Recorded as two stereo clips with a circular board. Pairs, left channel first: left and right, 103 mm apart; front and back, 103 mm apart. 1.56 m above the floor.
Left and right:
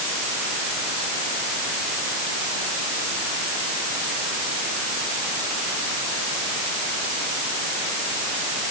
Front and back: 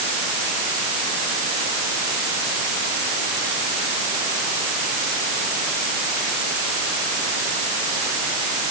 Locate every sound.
Only background noise.